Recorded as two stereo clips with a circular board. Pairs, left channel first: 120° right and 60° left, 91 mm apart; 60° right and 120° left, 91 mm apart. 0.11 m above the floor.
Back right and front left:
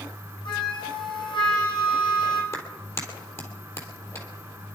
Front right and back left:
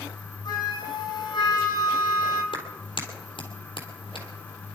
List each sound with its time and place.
0.5 s a flute: 95° right, 3.5 m
2.5 s a clap: 60° right, 3 m